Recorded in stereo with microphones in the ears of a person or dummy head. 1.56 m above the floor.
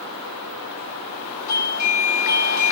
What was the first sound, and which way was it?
A doorbell, 75° left (ahead or behind).